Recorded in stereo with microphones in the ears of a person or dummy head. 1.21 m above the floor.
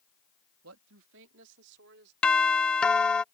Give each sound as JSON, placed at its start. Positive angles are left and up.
{"t": 0.6, "sound": "a man speaking", "side_deg": -80}
{"t": 2.2, "sound": "a doorbell", "side_deg": 5}